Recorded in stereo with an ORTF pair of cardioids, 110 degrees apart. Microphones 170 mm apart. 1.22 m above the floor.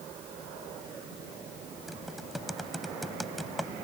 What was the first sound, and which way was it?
Typing on a keyboard, straight ahead.